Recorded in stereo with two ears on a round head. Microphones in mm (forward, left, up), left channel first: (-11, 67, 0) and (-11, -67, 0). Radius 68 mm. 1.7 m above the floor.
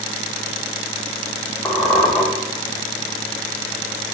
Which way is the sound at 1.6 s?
10° left (ahead or behind).